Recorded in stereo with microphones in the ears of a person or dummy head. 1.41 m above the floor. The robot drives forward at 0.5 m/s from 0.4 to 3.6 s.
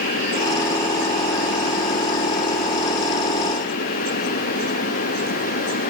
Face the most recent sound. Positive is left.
No sound to turn to.